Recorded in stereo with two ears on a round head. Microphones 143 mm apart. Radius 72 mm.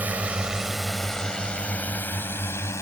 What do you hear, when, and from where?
0.0 s a drone: 10° right (ahead or behind); by 2.8 s 20° left (ahead or behind)